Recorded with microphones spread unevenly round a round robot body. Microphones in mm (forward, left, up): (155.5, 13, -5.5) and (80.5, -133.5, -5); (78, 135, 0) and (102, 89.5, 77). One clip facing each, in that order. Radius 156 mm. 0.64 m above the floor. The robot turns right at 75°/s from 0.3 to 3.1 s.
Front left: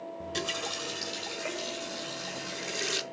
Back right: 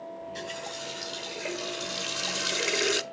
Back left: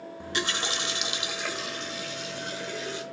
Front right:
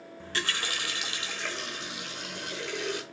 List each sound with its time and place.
0.2 s a running tap: 80° left, 0.8 m; by 3.0 s 75° right, 0.8 m